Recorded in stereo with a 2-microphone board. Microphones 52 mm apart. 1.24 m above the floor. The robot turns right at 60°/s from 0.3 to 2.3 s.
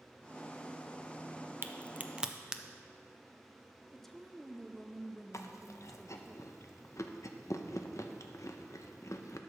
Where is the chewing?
70° left (ahead or behind), 0.6 m.